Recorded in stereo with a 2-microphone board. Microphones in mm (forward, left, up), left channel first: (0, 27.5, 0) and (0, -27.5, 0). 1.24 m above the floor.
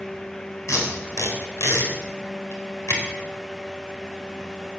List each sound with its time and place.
0.7 s tape being pulled: 85° left, 4 m